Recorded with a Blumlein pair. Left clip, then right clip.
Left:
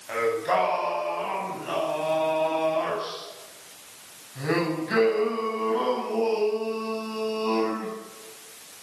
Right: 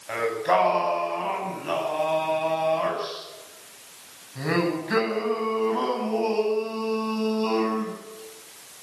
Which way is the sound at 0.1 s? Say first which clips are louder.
Right 1 dB; 10° right.